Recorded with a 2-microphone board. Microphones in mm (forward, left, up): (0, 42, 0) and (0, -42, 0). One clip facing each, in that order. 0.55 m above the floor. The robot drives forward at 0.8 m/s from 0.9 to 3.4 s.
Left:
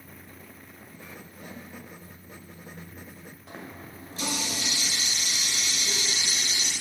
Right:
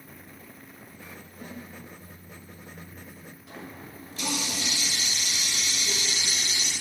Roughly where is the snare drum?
Right.